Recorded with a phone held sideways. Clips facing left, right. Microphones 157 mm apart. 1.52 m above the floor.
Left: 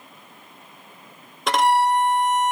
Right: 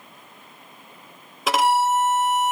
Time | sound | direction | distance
1.5 | a violin | 5° right (ahead or behind) | 0.7 m